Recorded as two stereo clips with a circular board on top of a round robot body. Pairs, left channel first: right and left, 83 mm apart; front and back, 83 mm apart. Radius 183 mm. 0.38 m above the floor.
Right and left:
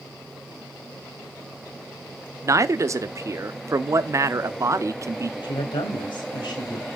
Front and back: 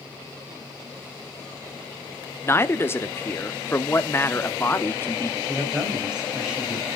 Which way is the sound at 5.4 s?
100° right.